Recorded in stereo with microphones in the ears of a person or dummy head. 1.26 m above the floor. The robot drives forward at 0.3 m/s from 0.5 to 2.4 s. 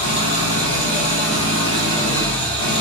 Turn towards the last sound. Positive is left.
turn(degrees=25)  # may be behind; listen again after turning